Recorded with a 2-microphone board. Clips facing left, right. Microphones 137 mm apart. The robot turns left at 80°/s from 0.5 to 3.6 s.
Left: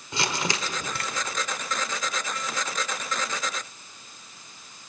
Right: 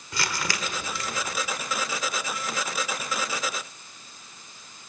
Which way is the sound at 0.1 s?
155° left.